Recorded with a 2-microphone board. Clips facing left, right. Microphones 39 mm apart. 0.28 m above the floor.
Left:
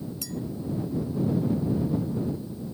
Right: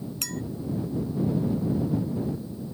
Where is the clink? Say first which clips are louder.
Right 2 dB; 70° right (ahead or behind).